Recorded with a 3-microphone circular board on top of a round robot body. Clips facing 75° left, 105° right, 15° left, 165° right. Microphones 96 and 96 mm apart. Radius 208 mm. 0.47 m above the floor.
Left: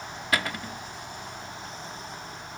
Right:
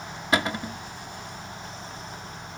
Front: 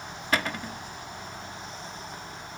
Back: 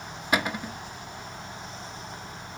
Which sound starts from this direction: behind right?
A cupboard door, at 0.3 s.